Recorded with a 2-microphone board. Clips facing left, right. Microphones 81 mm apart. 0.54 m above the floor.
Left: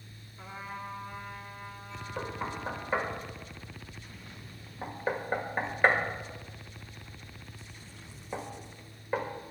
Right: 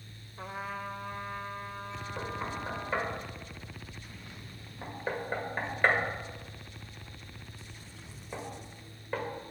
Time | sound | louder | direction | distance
0.4 | a trumpet | right 3 dB | 60° right (ahead or behind) | 1.1 m
2.2 | knocking | left 1 dB | 10° left (ahead or behind) | 1.9 m